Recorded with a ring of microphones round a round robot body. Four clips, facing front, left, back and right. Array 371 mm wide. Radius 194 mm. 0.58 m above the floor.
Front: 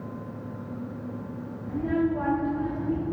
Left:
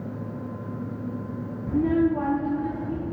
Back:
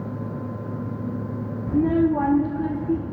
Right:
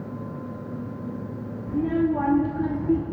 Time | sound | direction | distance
1.7 | a child speaking | 160° left | 1.1 m